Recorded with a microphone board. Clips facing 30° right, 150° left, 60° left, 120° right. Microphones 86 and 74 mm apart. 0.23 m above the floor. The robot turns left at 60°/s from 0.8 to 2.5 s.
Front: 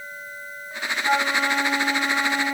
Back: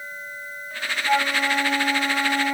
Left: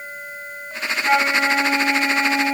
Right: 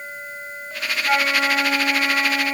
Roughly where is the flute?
Ahead.